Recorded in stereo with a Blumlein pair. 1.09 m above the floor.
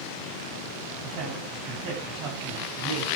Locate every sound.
1.0 s a man speaking: 45° right, 8.5 m; by 3.1 s 40° right, 7 m